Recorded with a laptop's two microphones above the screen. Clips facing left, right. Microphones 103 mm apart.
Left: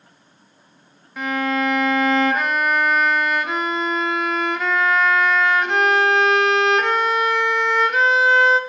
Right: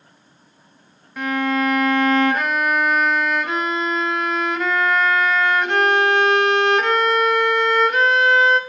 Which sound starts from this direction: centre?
A violin, at 1.2 s.